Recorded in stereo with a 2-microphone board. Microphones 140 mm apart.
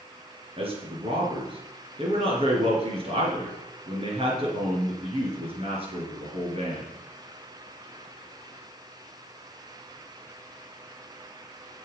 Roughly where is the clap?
No clap in this recording.